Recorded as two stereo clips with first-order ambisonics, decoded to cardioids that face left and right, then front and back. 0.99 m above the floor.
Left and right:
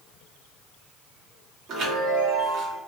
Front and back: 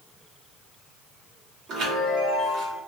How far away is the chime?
About 1.1 m.